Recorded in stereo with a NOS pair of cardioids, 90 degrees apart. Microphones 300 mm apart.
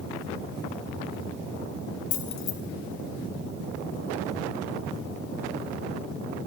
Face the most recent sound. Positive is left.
turn(degrees=70)